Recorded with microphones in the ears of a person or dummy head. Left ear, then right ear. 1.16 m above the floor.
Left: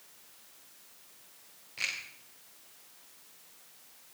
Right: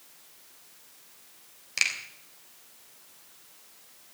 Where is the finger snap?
65° right (ahead or behind), 3.5 m.